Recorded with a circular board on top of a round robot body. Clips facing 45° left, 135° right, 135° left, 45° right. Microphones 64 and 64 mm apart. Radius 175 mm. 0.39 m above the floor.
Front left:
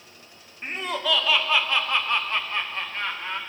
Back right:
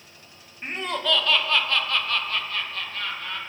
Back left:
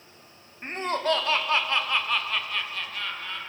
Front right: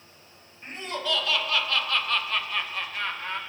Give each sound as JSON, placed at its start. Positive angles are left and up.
{"t": 0.6, "sound": "laughter", "azimuth_deg": 135, "distance_m": 2.0}